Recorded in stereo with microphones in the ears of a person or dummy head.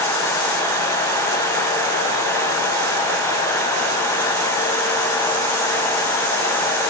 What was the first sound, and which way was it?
Only background noise.